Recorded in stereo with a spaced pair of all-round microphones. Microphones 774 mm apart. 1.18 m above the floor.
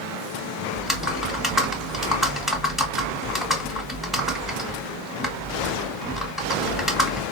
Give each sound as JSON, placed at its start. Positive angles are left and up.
{"t": 0.8, "sound": "typing on a keyboard", "side_deg": 0, "distance_m": 1.9}